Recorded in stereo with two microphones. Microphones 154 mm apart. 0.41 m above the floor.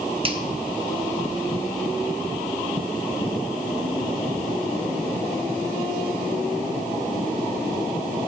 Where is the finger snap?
35° right (ahead or behind), 1.5 m.